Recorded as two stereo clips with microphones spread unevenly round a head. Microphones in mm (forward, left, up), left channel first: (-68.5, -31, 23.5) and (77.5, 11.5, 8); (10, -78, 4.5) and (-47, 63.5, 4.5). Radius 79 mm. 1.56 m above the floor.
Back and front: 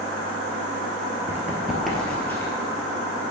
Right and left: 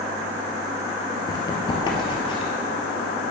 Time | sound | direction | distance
1.3 | running footsteps | 55° right | 1.6 m